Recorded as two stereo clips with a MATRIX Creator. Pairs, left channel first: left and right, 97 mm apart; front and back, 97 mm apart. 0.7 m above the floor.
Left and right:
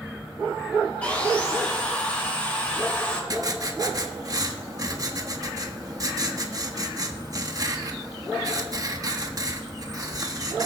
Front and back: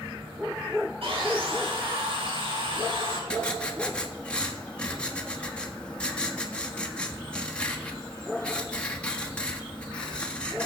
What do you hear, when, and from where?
1.0 s sawing: 165° left, 3.5 m
3.3 s writing: 70° right, 1.3 m